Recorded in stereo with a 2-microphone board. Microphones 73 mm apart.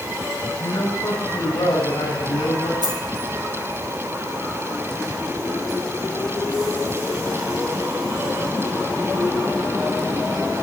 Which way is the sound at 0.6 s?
70° left (ahead or behind).